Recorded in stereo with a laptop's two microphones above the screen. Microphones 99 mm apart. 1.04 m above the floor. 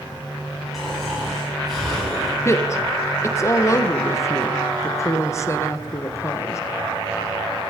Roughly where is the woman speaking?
Left.